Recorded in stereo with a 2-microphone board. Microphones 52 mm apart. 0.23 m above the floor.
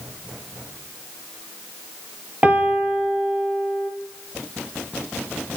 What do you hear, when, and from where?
2.4 s a piano: 30° right (ahead or behind), 2.5 m